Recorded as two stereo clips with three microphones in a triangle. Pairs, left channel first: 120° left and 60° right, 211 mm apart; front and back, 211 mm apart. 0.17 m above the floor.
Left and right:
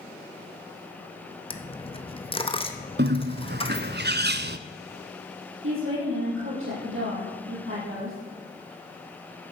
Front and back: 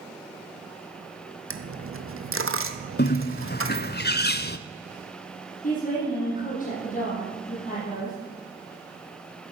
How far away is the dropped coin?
About 1.1 m.